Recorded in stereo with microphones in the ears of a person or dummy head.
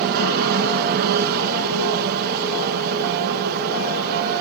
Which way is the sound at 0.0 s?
55° right (ahead or behind).